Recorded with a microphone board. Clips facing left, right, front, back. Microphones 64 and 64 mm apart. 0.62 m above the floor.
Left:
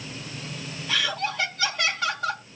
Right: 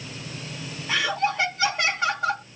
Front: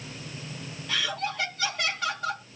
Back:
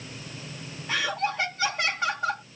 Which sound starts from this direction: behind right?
Laughter, at 0.9 s.